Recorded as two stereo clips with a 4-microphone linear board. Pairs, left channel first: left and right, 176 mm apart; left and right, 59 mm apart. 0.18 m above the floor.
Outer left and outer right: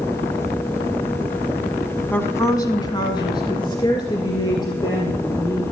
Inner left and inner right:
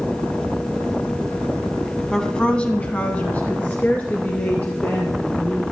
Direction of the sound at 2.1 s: 10° left (ahead or behind).